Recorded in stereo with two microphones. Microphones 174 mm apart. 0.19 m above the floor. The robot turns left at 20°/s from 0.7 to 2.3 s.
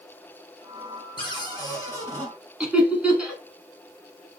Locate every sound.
1.2 s a cupboard door: 30° left (ahead or behind), 1.7 m; by 2.3 s 10° left (ahead or behind), 1.7 m
2.6 s laughter: 5° right (ahead or behind), 1.8 m